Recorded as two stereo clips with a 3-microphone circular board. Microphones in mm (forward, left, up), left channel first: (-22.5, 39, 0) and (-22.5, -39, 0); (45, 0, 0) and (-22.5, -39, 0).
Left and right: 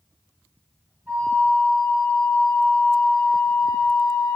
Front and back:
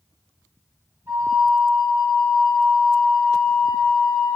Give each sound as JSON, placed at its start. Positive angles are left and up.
{"t": 1.1, "sound": "a flute", "azimuth_deg": -140, "distance_m": 1.7}